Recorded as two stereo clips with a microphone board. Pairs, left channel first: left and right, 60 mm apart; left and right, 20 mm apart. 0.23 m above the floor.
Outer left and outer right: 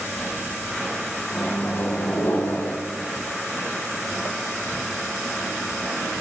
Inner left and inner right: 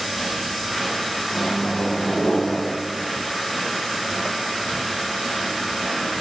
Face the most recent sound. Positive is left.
turn(degrees=40)  # may be behind; listen again after turning